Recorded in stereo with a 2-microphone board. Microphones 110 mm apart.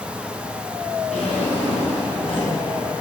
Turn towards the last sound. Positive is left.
turn(degrees=75)  # may be behind; listen again after turning